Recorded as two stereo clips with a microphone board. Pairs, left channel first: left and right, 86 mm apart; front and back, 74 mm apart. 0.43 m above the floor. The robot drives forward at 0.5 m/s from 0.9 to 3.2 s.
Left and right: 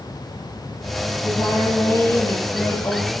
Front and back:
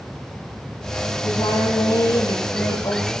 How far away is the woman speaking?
About 8.5 m.